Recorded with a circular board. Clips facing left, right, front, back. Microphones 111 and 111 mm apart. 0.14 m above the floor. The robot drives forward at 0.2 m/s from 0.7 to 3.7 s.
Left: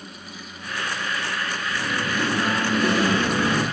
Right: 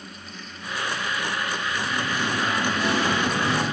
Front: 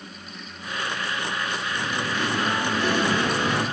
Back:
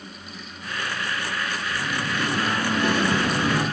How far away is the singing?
About 1.0 m.